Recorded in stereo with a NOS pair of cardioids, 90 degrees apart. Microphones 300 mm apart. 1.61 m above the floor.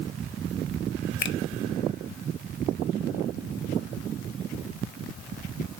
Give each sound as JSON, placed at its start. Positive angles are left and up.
{"t": 1.2, "sound": "a finger snap", "azimuth_deg": 40, "distance_m": 0.9}